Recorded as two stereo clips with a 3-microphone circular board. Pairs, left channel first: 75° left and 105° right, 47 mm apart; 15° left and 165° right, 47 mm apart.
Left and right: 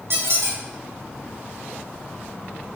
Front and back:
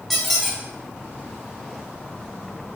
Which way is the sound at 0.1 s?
75° right.